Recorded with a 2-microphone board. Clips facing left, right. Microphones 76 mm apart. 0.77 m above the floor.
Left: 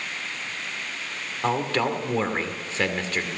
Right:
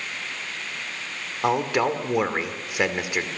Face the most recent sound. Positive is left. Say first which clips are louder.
# right 2 dB
turn(degrees=-15)  # may be behind; listen again after turning